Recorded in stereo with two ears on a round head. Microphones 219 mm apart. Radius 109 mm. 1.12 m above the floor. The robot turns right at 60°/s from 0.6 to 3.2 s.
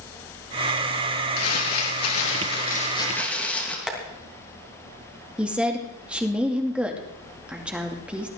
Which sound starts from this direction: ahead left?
Crumpling, at 1.4 s.